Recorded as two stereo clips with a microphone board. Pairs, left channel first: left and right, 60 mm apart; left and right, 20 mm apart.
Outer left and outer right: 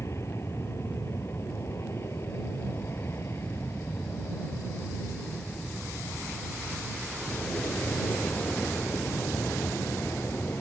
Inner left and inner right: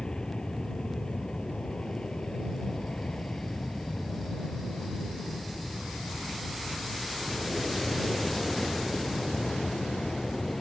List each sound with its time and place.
0.0 s an aircraft: 50° left (ahead or behind); by 10.6 s 40° left (ahead or behind)